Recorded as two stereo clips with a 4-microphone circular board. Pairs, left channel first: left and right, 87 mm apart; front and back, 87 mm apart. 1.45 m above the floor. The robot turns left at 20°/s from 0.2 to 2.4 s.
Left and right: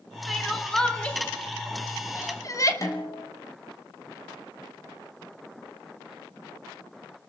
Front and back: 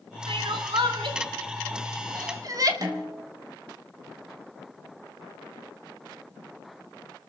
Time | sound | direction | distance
0.3 | crying | straight behind | 2.5 m
2.8 | a snare drum | 140° left | 4 m